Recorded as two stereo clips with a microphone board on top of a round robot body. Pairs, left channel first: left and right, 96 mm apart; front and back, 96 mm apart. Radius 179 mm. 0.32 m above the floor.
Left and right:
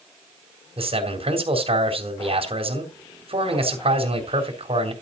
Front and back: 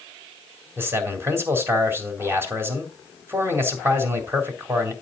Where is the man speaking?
115° right, 4 m.